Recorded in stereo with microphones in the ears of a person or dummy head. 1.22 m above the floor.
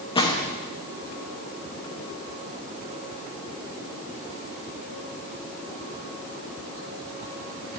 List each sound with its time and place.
0.1 s a gunshot: 20° left (ahead or behind), 1.2 m